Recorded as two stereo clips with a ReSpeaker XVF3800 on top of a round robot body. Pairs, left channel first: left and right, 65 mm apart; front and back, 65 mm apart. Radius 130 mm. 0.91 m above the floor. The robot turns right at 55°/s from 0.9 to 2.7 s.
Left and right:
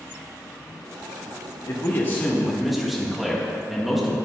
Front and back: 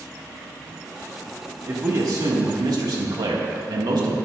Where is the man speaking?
125° left, 1.9 m; by 4.2 s straight behind, 1.9 m.